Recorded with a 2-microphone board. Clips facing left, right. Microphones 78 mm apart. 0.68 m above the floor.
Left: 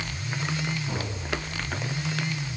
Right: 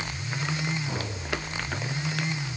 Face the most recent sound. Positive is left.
No sound to turn to.